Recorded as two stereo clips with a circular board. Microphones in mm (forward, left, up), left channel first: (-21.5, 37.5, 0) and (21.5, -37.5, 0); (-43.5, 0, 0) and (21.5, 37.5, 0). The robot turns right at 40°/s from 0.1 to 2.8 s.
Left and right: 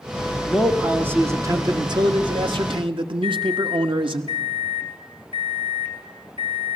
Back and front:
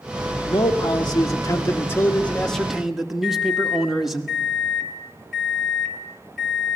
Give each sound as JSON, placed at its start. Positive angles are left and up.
{"t": 0.4, "sound": "a man speaking", "azimuth_deg": -150, "distance_m": 1.5}
{"t": 3.2, "sound": "a microwave", "azimuth_deg": -65, "distance_m": 3.0}